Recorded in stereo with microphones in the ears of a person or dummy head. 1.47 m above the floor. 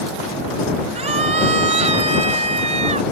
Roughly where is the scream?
Right.